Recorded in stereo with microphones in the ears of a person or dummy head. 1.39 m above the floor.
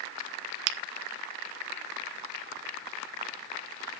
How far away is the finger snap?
About 0.9 m.